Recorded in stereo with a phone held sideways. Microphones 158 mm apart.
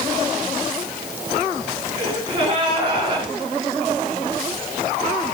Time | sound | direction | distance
2.0 | a gasp | 30° right (ahead or behind) | 4 m